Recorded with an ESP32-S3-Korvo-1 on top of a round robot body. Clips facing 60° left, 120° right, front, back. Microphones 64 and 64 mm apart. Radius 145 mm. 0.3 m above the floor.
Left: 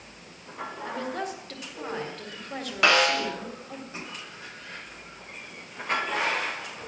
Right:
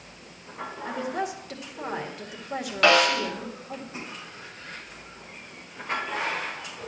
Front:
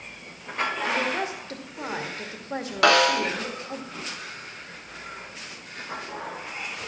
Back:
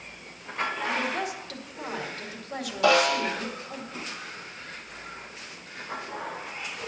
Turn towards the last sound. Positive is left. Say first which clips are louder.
# right 2 dB, front 2 dB
turn(degrees=-25)